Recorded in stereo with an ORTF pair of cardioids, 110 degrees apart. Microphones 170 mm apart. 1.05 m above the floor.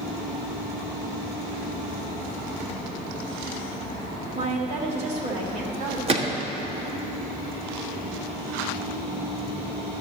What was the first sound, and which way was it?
A woman speaking, 40° right.